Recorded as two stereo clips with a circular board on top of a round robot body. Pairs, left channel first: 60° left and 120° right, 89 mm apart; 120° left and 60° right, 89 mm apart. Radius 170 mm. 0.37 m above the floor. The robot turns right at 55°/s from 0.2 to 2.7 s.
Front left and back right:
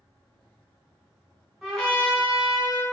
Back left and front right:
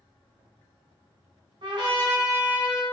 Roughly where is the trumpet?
Ahead right.